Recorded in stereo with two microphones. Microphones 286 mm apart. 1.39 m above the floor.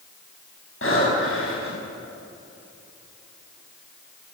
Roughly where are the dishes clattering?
I don't hear dishes clattering.